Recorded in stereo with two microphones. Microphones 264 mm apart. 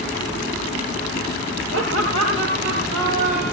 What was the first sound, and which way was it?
Laughter, 50° right (ahead or behind).